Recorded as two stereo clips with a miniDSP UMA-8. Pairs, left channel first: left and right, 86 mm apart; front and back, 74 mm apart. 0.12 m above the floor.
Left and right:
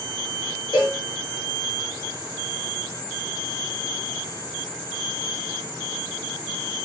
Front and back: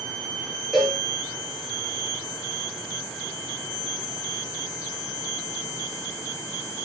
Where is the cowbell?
100° left, 6.5 m.